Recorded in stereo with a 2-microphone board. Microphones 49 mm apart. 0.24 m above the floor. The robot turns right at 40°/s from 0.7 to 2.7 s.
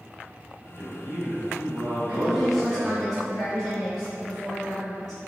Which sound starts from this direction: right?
A man speaking, at 0.8 s.